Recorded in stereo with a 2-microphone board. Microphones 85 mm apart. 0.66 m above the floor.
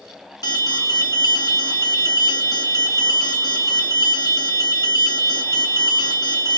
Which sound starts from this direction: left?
An alarm, at 0.4 s.